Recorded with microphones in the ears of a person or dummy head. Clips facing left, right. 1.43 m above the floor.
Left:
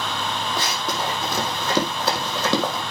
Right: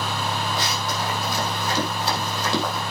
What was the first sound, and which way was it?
Running footsteps, 50° left (ahead or behind).